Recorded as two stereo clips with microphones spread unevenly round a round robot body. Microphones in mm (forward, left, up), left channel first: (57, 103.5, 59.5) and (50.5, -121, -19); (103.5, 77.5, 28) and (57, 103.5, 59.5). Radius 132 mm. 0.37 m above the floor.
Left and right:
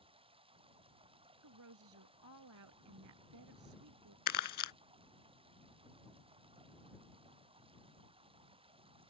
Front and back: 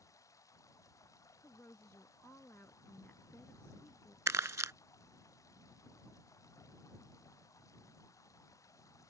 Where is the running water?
25° right.